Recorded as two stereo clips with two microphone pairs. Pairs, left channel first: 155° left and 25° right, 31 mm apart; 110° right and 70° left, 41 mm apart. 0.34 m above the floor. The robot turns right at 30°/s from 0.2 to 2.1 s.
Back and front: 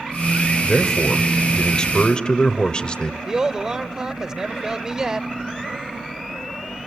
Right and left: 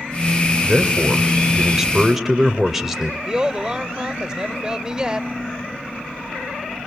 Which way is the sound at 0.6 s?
105° left.